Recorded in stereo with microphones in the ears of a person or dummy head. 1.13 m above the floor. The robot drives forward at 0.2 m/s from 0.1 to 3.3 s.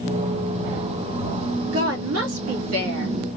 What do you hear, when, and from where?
1.7 s a woman speaking: 80° right, 2 m; by 3.1 s 85° right, 2.0 m